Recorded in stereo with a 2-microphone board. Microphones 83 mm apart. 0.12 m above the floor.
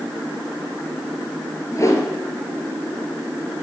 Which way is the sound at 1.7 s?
40° left (ahead or behind).